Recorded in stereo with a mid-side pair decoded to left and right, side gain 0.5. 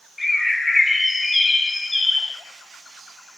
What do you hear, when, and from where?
0.2 s a bird: 15° left, 1.1 m